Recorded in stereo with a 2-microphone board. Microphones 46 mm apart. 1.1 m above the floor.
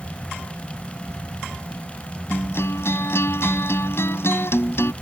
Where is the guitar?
70° left (ahead or behind).